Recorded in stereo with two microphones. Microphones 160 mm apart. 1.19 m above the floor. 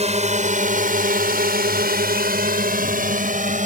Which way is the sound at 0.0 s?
45° right (ahead or behind).